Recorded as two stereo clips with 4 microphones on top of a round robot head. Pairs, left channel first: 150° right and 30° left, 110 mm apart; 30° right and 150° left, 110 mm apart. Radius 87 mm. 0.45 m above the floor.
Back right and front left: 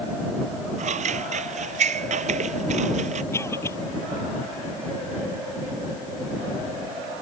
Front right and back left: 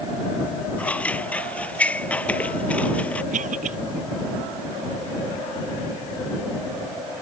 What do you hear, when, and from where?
0.8 s scissors: 50° left
3.3 s a cough: 145° left